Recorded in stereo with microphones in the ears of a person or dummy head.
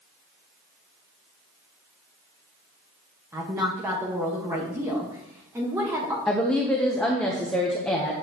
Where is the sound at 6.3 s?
Centre (ahead or behind), 0.9 m.